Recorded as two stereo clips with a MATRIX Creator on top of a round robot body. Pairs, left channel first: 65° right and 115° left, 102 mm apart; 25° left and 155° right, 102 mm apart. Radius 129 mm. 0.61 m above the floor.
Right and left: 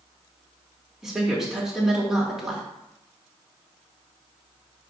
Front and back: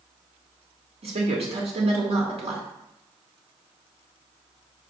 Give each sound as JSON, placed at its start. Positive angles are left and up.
{"t": 1.0, "sound": "a woman speaking", "azimuth_deg": -165, "distance_m": 2.5}